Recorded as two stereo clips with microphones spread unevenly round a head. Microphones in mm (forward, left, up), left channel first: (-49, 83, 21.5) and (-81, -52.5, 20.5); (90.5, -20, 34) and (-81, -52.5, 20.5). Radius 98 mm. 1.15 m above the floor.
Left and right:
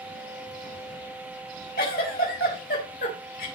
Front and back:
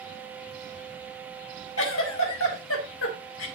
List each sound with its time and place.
1.8 s a giggle: 30° left, 3.5 m